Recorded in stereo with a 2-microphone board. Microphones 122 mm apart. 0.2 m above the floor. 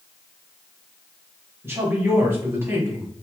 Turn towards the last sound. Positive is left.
turn(degrees=-20)  # may be behind; listen again after turning